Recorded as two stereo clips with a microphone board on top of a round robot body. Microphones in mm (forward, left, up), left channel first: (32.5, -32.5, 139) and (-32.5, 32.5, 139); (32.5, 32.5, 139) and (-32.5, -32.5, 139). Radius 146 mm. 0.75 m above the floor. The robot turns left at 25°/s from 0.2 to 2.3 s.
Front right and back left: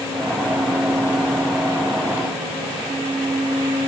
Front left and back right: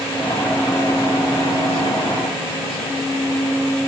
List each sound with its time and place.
Only background noise.